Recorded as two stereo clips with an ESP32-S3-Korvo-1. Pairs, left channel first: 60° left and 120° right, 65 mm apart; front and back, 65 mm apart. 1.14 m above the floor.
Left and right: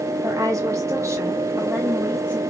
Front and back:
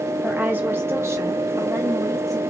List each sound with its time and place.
0.2 s a woman speaking: 110° right, 1.0 m; by 2.4 s straight behind, 1.3 m